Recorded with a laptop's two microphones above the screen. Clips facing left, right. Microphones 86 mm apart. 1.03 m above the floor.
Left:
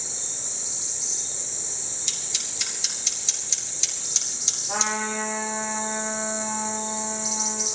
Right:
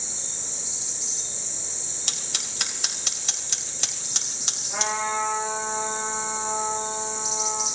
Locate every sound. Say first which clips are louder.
2.1 s scissors: right 2 dB; 60° right (ahead or behind), 3 m
4.7 s a trumpet: right 1 dB; 75° left (ahead or behind), 7.5 m